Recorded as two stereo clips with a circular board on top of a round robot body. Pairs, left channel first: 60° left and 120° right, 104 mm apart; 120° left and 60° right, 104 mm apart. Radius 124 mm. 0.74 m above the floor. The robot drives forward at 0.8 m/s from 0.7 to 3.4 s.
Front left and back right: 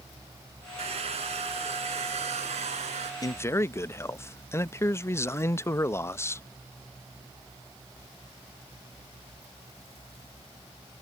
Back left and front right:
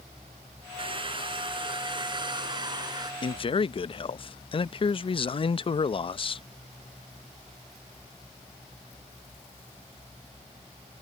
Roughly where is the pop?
I don't hear a pop.